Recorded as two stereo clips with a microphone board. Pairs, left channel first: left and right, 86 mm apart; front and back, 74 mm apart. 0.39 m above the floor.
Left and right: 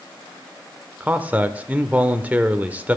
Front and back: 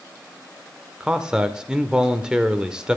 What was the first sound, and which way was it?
A man speaking, 120° right.